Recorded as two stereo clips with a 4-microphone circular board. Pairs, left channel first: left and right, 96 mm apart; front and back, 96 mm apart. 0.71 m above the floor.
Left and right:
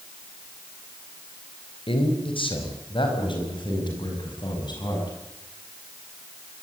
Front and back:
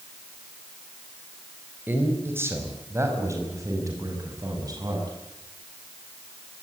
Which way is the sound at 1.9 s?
110° left.